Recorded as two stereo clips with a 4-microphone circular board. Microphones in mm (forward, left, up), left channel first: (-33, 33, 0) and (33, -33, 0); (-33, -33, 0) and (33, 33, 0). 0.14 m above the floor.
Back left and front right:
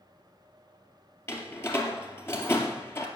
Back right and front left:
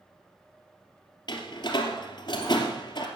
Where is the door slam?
165° right, 2.5 m.